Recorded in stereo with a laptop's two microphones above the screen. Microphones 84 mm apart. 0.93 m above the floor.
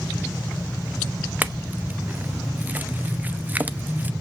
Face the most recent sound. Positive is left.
turn(degrees=-25)  # may be behind; listen again after turning